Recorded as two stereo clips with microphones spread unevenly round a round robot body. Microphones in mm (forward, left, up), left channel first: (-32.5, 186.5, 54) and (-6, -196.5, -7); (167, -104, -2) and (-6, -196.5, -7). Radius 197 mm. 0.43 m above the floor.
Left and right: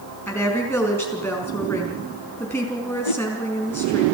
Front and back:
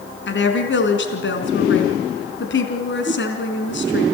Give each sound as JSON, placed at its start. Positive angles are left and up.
{"t": 0.3, "sound": "a woman speaking", "azimuth_deg": 10, "distance_m": 4.0}
{"t": 3.0, "sound": "a whoosh", "azimuth_deg": 95, "distance_m": 1.7}